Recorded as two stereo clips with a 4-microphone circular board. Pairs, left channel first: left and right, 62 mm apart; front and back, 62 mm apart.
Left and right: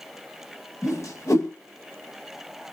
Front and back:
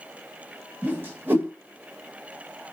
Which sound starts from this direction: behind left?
A whoosh, at 0.8 s.